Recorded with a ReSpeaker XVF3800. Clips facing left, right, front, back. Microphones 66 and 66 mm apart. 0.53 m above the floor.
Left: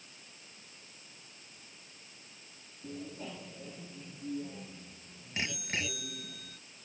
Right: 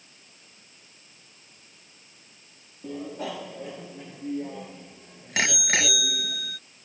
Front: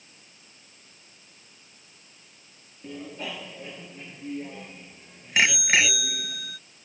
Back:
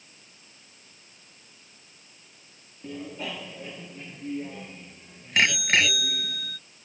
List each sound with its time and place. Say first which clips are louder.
2.8 s a bicycle bell: right 9 dB, back 1 dB; 90° right; by 6.6 s 85° right